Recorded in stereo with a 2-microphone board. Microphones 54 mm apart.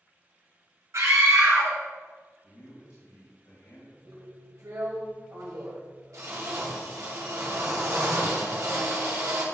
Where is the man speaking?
75° left (ahead or behind), 2.5 m.